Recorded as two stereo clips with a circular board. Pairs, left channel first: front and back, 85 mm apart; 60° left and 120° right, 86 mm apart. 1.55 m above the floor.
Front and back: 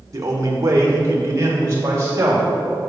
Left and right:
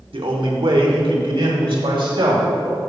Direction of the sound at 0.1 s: 130° right.